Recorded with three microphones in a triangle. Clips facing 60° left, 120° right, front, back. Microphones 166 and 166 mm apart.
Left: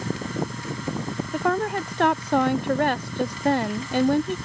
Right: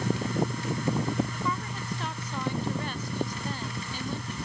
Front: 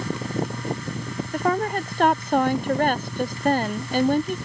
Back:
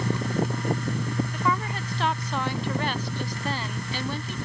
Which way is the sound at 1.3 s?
40° left.